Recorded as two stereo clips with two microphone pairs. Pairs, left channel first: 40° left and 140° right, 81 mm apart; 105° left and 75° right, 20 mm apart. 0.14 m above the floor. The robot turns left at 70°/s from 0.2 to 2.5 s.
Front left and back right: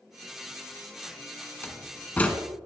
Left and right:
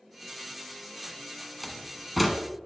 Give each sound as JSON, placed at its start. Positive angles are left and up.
{"t": 1.6, "sound": "a door slam", "azimuth_deg": 50, "distance_m": 1.0}